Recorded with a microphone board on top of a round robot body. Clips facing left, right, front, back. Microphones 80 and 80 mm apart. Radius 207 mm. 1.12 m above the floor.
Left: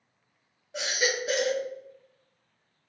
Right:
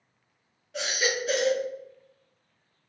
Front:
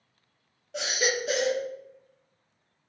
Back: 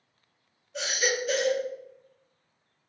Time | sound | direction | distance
0.7 | a baby crying | 20° left | 0.7 m